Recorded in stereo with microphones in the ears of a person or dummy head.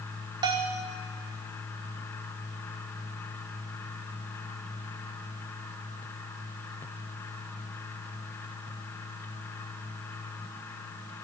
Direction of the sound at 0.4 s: 20° right (ahead or behind).